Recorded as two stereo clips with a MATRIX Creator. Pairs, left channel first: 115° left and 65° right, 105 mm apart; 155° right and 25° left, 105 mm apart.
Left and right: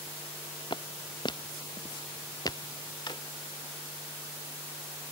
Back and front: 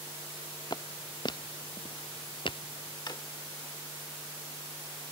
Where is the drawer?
155° left.